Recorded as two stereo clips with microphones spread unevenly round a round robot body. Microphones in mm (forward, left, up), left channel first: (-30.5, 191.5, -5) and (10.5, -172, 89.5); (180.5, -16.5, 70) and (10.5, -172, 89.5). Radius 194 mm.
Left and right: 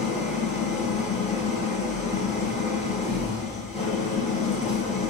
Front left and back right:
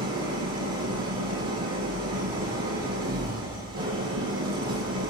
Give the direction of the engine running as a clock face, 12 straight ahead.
6 o'clock.